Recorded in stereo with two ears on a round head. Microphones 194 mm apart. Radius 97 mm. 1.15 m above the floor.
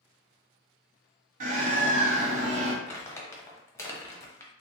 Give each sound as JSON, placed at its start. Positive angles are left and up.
{"t": 1.4, "sound": "a bird", "side_deg": -40, "distance_m": 1.3}
{"t": 2.9, "sound": "crumpling", "side_deg": 15, "distance_m": 0.8}